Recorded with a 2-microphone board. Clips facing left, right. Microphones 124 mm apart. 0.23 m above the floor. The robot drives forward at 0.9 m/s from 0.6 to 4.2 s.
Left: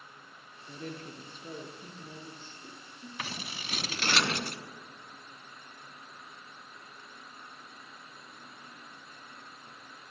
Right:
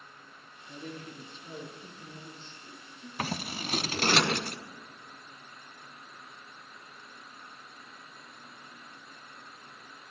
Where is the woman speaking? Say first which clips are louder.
Left 1 dB; 55° left (ahead or behind), 3.5 m; by 3.1 s 35° left (ahead or behind), 5 m.